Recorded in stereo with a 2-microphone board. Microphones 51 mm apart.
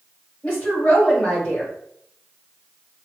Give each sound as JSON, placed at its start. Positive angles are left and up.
{"t": 0.4, "sound": "a woman speaking", "side_deg": 25, "distance_m": 1.9}